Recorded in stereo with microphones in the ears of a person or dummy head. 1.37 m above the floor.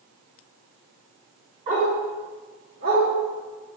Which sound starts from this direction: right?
A dog barking, at 1.7 s.